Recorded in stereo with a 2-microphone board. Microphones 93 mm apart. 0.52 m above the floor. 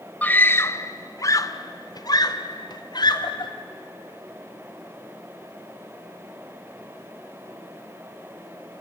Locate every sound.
0.2 s a scream: 20° left (ahead or behind), 1.0 m; by 3.5 s 55° left (ahead or behind), 2.5 m